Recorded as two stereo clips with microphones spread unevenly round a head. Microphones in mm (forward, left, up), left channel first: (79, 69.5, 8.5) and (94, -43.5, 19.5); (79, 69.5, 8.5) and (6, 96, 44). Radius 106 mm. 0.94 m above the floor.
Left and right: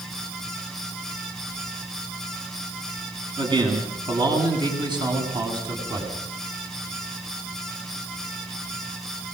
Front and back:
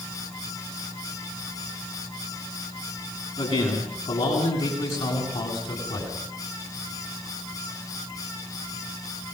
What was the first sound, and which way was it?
A man speaking, 35° right.